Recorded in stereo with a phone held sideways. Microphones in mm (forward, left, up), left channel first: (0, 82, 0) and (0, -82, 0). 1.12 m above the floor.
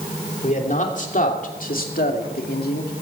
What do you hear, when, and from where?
0.4 s a man speaking: 50° left (ahead or behind), 3 m; by 2.9 s 70° left (ahead or behind), 2.5 m